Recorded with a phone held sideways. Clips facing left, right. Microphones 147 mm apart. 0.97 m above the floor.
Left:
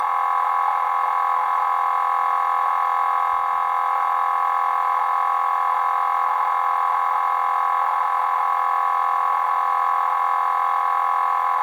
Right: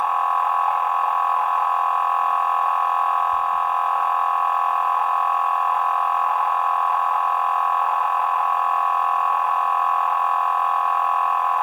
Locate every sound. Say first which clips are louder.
0.0 s a machine running: right 1 dB; 5° right (ahead or behind), 1.2 m